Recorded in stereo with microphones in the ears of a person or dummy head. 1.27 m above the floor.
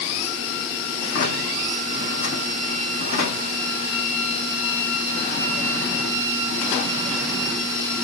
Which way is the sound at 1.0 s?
60° left (ahead or behind).